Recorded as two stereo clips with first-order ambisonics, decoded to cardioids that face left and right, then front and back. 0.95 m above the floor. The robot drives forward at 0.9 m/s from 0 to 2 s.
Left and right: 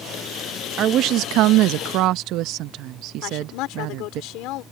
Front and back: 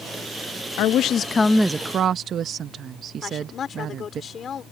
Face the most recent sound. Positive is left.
turn(degrees=60)